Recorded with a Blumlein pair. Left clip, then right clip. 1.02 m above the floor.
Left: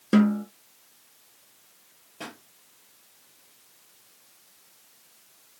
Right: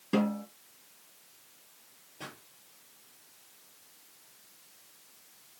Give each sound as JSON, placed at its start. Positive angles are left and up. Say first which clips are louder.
{"t": 0.1, "sound": "a snare drum", "louder": "left 7 dB", "azimuth_deg": 45, "distance_m": 5.5}
{"t": 2.2, "sound": "a pop", "louder": "left 5 dB", "azimuth_deg": 20, "distance_m": 4.5}